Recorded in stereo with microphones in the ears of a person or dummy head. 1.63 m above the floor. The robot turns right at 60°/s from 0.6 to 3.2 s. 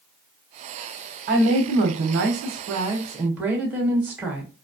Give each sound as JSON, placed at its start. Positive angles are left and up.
{"t": 1.3, "sound": "a woman speaking", "azimuth_deg": -125, "distance_m": 1.0}